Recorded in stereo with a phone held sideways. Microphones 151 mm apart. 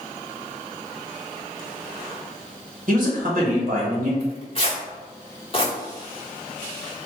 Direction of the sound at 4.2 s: 40° left (ahead or behind).